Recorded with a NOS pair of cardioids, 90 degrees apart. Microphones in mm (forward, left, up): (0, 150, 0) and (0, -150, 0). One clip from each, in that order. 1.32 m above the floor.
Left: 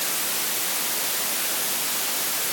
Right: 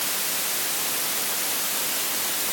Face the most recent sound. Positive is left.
No sound to turn to.